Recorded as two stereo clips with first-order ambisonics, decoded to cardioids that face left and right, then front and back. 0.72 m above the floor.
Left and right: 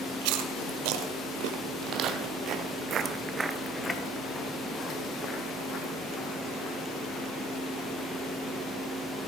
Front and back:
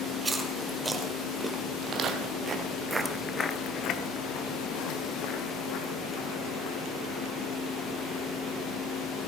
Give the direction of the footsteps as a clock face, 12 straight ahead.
4 o'clock.